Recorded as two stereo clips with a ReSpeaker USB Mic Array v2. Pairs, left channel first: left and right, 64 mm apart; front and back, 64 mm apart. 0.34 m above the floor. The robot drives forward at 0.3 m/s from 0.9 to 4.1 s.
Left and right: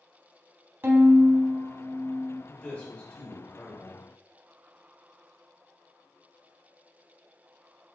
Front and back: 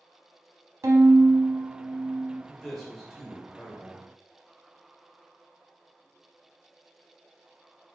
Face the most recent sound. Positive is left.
turn(degrees=145)